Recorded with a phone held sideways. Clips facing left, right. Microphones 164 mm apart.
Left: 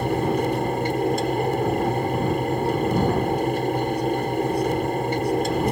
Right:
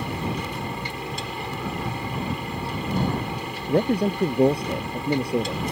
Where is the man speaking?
70° right (ahead or behind).